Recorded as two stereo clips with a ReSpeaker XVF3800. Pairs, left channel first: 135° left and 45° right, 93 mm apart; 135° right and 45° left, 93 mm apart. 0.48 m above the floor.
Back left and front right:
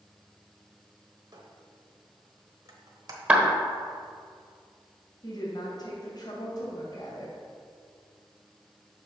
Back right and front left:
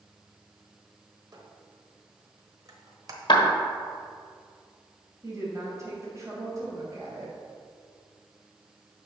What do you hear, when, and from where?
1.3 s a squeak: straight ahead, 1.0 m
3.3 s a clap: 115° right, 1.2 m
5.2 s a woman speaking: 95° left, 2.5 m